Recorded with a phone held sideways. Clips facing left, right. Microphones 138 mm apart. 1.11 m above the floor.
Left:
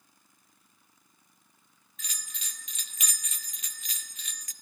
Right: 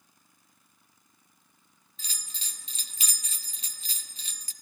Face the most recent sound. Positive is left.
turn(degrees=-30)  # may be behind; listen again after turning